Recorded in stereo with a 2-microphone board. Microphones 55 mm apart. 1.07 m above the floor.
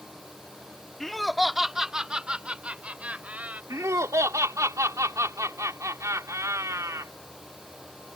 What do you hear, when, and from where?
1.0 s laughter: 10° left (ahead or behind); by 3.6 s 25° right (ahead or behind)
3.7 s laughter: 80° right